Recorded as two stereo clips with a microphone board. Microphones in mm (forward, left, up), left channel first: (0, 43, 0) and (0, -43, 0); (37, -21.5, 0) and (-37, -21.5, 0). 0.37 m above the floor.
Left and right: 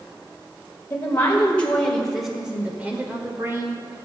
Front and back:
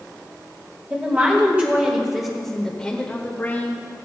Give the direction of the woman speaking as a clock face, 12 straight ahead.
7 o'clock.